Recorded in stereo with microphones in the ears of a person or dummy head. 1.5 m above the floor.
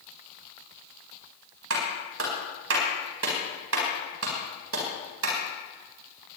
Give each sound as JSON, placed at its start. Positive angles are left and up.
{"t": 1.7, "sound": "a clap", "side_deg": -80, "distance_m": 4.0}